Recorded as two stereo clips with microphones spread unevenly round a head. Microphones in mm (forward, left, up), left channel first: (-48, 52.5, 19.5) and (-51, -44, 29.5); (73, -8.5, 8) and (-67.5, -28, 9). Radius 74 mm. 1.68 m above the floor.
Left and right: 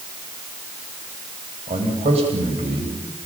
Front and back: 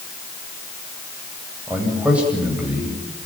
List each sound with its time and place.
1.7 s a man speaking: 90° right, 9.5 m